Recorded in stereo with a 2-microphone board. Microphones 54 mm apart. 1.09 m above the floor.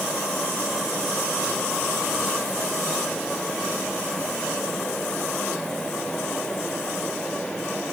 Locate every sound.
Only background noise.